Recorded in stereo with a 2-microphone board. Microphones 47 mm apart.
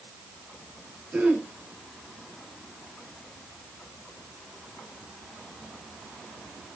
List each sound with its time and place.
1.1 s throat clearing: 25° right (ahead or behind), 3 m